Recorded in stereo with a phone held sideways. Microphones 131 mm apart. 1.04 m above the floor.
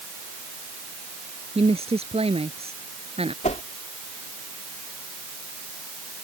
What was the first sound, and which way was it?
A woman speaking, 50° right (ahead or behind).